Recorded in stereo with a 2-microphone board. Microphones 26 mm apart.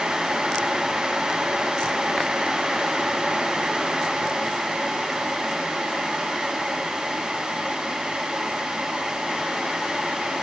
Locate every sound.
Only background noise.